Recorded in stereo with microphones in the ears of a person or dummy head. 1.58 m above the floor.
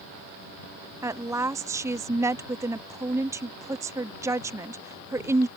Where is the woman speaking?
15° right (ahead or behind).